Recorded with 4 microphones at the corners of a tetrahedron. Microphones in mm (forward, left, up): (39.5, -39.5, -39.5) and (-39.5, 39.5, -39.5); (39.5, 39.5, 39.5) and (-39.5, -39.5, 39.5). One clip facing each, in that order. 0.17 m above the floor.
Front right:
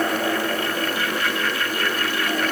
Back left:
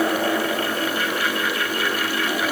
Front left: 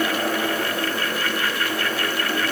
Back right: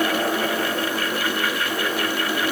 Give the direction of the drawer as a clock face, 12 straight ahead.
I don't hear a drawer.